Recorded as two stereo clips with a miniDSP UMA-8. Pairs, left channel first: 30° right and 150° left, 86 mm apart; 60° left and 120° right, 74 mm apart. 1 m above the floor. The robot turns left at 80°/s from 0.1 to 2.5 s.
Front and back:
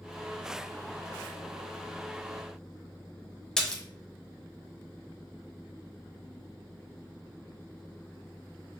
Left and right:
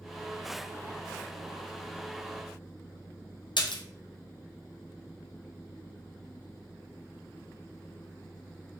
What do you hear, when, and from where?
3.6 s a splash: 50° left, 0.5 m